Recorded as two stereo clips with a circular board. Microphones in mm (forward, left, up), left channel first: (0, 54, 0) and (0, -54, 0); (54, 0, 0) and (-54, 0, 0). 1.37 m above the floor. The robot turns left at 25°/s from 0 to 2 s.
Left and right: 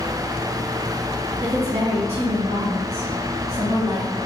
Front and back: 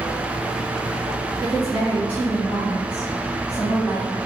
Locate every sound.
1.4 s a woman speaking: 60° right, 1.2 m; by 4.1 s 75° right, 1.2 m